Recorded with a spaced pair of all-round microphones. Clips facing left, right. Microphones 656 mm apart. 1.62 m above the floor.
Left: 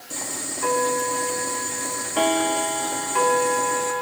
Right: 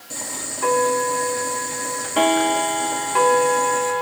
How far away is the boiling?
About 4 m.